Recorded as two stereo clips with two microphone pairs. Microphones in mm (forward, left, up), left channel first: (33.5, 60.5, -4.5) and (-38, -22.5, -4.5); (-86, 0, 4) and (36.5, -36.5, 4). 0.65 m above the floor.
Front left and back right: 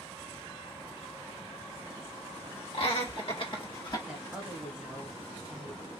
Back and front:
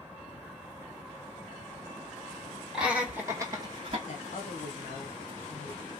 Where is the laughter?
70° left, 2 m; by 4.0 s 15° left, 1.7 m.